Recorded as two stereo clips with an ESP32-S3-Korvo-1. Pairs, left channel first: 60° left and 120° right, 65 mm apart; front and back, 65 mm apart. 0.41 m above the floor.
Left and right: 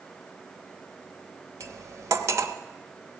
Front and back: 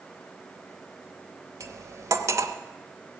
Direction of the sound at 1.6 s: 150° right.